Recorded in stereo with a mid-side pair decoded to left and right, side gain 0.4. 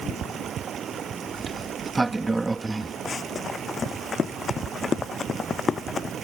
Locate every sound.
0.0 s running water: 60° right
1.4 s a sliding door: 20° right
3.0 s running footsteps: 45° left